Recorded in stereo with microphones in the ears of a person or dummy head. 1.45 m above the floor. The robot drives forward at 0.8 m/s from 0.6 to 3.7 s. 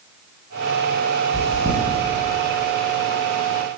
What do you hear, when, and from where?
1.3 s chewing: 35° right (ahead or behind), 9.5 m